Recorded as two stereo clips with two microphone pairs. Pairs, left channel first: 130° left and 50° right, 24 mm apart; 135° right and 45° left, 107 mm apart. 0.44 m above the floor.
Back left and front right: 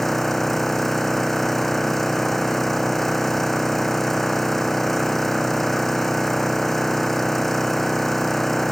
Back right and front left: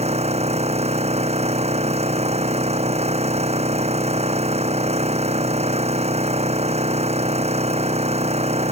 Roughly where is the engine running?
Ahead left.